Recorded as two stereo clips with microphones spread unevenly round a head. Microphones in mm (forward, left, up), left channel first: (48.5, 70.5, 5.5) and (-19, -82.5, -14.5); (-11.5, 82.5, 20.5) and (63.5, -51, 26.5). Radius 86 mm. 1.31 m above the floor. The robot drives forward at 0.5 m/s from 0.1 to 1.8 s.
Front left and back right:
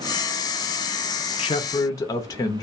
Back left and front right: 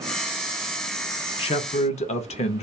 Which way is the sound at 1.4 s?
115° left.